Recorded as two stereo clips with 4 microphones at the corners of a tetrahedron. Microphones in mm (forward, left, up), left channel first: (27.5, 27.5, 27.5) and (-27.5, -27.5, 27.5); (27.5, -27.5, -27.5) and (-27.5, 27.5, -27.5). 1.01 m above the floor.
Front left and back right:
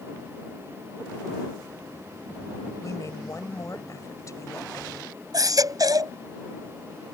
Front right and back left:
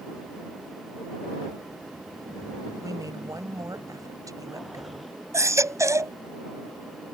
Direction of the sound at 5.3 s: 175° right.